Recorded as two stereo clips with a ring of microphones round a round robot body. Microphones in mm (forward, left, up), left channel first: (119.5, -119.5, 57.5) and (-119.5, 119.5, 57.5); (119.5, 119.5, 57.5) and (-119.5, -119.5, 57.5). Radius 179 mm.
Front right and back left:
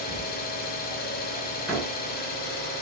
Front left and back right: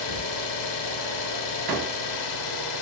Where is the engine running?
20° left, 0.7 m.